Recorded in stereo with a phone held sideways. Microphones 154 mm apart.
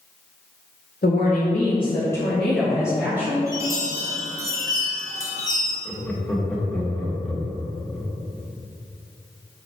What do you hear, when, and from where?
1.0 s a woman speaking: 70° left (ahead or behind), 1.7 m; by 3.4 s 15° right (ahead or behind), 3 m
3.5 s a chime: 20° right (ahead or behind), 1.8 m
5.8 s laughter: 5° left (ahead or behind), 1.7 m